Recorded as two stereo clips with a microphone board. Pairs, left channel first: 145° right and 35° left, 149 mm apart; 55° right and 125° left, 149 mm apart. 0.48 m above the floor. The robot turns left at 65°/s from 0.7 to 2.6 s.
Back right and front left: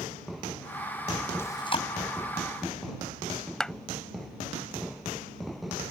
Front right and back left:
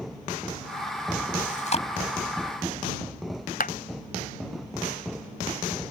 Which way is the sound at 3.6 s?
60° right.